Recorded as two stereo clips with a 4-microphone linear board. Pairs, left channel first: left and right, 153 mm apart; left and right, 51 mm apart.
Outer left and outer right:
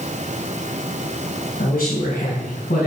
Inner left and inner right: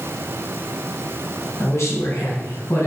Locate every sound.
1.6 s a man speaking: 65° left (ahead or behind), 3.5 m; by 2.9 s 80° left, 4.5 m